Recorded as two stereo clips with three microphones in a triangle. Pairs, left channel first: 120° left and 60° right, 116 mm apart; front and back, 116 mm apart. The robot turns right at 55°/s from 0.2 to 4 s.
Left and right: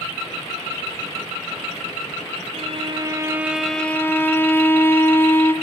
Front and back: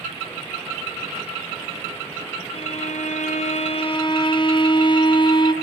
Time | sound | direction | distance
2.5 | a violin | 30° right | 1.3 m